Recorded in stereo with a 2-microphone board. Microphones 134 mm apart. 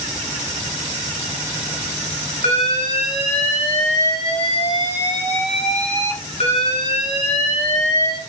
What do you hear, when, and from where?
2.4 s an alarm: 55° left (ahead or behind), 2 m